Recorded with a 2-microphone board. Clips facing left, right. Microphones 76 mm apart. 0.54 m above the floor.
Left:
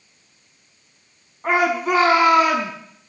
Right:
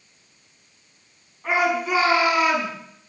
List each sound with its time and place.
1.4 s a shout: 40° left (ahead or behind), 6 m